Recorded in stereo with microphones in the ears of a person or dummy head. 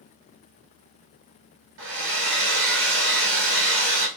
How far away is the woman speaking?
No woman speaking in this recording.